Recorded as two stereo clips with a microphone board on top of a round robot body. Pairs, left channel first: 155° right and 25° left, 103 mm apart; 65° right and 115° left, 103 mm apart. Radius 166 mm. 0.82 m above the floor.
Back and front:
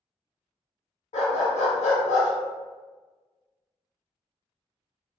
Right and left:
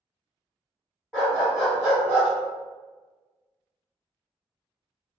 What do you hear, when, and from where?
1.1 s a dog barking: 165° right, 1.3 m